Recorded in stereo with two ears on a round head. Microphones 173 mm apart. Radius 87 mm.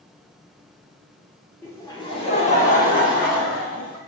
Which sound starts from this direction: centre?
Laughter, at 1.6 s.